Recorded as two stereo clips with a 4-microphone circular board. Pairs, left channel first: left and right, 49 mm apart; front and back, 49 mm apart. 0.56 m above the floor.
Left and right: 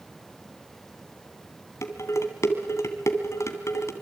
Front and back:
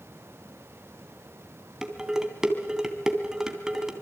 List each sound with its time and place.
1.8 s dishes clattering: 100° left, 2.5 m